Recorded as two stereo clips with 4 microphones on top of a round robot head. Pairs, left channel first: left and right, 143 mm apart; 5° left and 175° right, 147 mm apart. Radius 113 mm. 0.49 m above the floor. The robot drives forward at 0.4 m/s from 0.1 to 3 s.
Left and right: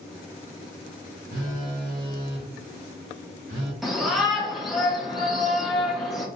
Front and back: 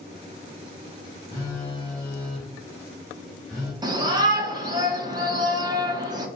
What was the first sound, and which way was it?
A phone buzzing, 70° right.